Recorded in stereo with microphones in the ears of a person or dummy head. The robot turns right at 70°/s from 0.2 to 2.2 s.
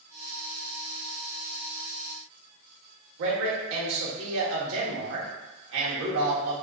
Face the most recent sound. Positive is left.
turn(degrees=-70)  # may be behind; listen again after turning